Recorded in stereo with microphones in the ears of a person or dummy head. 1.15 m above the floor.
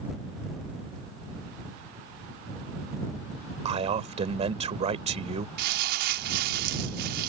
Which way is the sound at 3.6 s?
40° right (ahead or behind).